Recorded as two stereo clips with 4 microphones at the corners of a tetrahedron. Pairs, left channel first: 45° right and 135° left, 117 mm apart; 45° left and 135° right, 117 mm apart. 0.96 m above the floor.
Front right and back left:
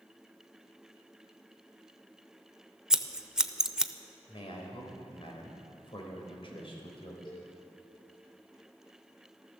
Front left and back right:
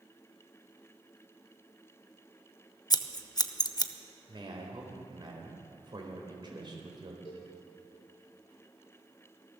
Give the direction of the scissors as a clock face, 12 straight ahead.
10 o'clock.